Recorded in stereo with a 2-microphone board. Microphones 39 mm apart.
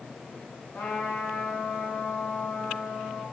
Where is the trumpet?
50° left (ahead or behind), 2.5 m.